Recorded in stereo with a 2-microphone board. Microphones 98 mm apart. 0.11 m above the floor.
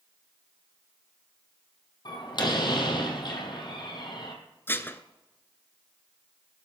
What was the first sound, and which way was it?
A door slam, 50° left (ahead or behind).